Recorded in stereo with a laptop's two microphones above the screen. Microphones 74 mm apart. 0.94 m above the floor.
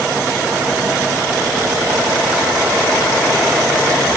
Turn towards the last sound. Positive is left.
No sound to turn to.